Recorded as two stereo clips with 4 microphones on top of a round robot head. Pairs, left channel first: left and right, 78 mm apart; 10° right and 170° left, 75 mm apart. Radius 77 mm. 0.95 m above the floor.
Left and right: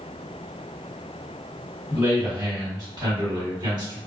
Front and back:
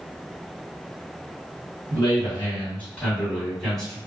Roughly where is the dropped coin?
I don't hear a dropped coin.